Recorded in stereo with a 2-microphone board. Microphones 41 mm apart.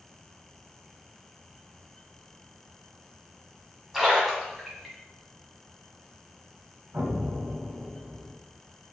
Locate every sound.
3.9 s a splash: 5° right (ahead or behind), 1.5 m
6.9 s an explosion: 60° right (ahead or behind), 0.7 m